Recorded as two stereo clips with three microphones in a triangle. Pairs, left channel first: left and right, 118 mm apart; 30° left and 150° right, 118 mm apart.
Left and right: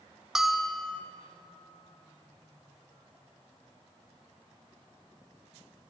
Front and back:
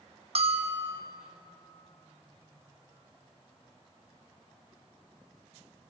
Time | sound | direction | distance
0.3 | a bell | 175° right | 0.9 m